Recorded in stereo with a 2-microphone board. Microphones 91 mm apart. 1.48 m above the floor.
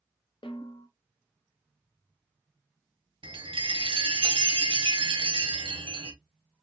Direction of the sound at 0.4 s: 75° left (ahead or behind).